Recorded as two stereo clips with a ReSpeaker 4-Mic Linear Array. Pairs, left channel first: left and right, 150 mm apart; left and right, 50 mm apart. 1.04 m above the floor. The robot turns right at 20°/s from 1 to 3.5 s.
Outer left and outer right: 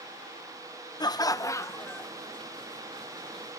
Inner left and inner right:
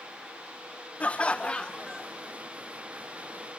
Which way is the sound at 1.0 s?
30° left (ahead or behind).